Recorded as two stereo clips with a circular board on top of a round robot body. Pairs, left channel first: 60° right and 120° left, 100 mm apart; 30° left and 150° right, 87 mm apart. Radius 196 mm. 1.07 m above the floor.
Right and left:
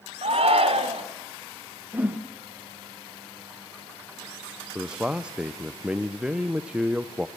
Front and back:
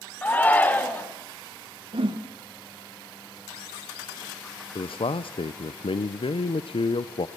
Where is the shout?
100° left, 3 m.